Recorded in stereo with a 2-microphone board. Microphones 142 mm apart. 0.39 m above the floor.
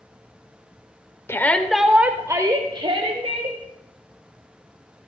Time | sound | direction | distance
1.3 | a shout | 20° left (ahead or behind) | 0.9 m